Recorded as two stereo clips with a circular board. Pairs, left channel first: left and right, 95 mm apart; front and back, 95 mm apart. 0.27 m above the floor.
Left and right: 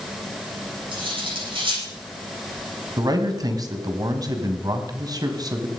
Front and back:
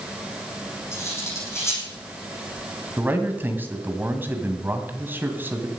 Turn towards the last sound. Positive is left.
turn(degrees=-115)